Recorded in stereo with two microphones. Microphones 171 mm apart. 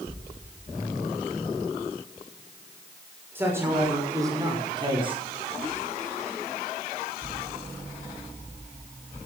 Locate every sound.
3.4 s a man speaking: 15° right (ahead or behind), 6.5 m; by 5.2 s 35° right (ahead or behind), 5.5 m